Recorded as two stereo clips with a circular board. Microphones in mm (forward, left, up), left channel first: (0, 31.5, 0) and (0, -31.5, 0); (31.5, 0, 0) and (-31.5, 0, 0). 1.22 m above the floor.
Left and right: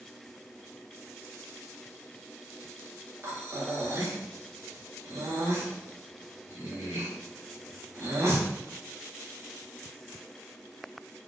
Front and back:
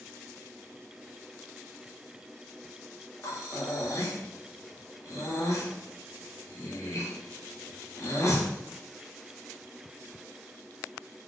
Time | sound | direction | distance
3.2 | breathing | 45° right | 0.8 m